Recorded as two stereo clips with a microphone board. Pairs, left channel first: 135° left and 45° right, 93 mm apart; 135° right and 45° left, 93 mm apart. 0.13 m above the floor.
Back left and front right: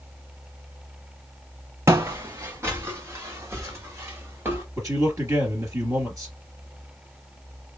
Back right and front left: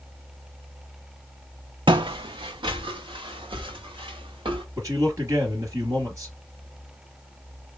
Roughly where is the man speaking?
Ahead.